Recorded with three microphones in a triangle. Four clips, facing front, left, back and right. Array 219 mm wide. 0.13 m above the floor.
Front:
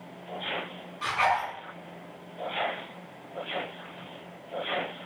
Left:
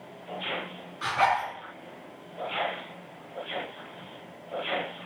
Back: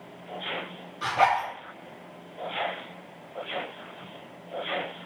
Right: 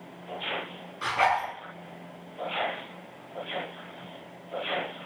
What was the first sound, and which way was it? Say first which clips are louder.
A zipper: even, back 3 dB; 175° left.